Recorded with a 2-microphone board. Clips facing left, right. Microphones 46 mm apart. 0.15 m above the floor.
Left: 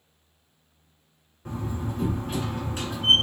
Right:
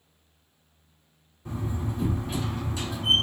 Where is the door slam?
35° left (ahead or behind), 1.4 m.